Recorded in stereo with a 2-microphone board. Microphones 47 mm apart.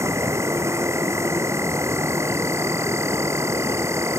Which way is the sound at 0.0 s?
75° right (ahead or behind).